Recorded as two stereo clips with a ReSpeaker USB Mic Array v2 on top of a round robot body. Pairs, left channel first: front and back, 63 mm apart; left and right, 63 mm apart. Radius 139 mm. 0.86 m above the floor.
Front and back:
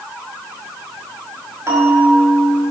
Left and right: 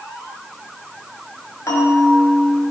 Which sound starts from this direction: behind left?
A bell, at 1.7 s.